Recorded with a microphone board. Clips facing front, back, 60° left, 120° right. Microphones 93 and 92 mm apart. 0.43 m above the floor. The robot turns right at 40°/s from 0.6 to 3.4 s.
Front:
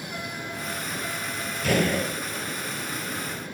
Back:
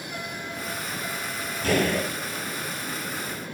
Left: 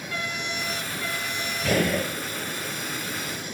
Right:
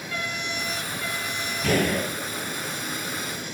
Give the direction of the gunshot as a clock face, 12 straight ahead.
4 o'clock.